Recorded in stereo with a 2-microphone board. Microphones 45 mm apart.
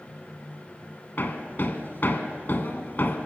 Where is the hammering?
45° left (ahead or behind), 1.5 m.